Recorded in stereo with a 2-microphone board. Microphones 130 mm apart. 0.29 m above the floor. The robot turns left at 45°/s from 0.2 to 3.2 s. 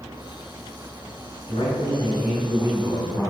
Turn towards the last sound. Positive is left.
turn(degrees=30)